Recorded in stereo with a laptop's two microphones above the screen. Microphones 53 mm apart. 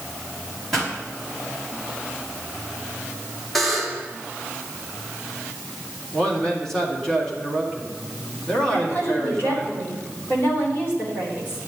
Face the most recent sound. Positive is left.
turn(degrees=40)  # may be behind; listen again after turning